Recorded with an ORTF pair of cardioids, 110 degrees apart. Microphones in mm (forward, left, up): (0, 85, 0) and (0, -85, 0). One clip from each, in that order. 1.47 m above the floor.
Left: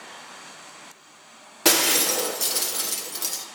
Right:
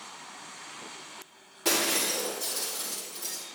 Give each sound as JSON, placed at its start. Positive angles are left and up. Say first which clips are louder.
{"t": 1.6, "sound": "breaking glass", "louder": "left 7 dB", "azimuth_deg": 65, "distance_m": 1.6}